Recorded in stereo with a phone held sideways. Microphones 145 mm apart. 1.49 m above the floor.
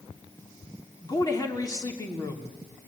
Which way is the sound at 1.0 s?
25° left (ahead or behind).